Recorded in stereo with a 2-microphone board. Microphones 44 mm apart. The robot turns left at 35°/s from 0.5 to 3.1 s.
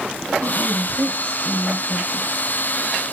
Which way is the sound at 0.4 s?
55° right.